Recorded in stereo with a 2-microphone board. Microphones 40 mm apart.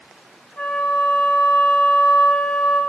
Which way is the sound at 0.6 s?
55° left (ahead or behind).